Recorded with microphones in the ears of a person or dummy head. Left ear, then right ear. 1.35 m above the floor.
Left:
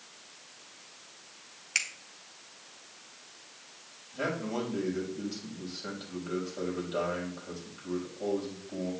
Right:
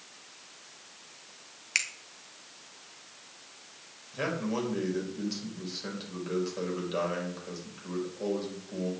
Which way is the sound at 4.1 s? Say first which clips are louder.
Right 1 dB; 65° right (ahead or behind).